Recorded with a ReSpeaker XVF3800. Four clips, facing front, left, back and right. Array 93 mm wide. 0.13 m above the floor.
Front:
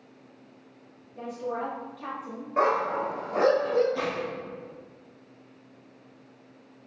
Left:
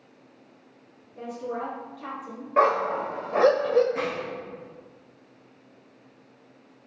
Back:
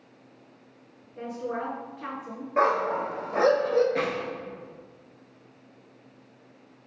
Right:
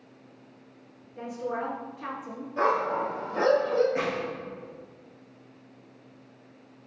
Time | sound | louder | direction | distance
1.2 | a woman speaking | even, even | 140° right | 1.6 m
2.6 | a dog barking | left 4 dB, back 1 dB | 115° left | 1.2 m
4.0 | a gunshot | even, back 2 dB | 165° right | 1.3 m